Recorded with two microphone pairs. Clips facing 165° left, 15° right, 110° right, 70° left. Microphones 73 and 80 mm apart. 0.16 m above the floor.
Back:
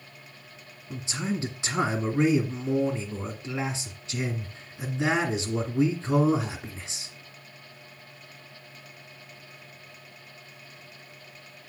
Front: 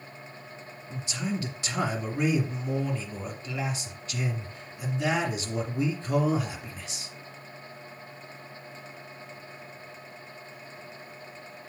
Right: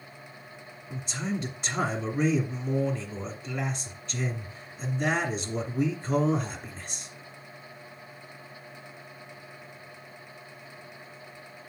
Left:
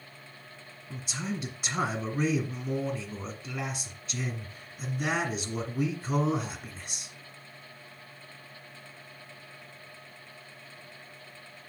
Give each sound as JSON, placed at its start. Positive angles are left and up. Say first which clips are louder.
{"t": 0.9, "sound": "a man speaking", "louder": "back 2 dB, right 3 dB", "azimuth_deg": 165, "distance_m": 1.6}